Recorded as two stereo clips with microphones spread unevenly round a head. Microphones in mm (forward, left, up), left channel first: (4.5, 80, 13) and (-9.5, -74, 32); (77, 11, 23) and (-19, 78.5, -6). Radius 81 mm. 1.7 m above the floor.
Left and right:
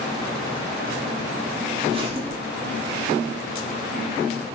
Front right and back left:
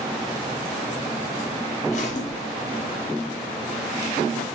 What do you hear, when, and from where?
1.8 s a zipper: 40° right, 1.0 m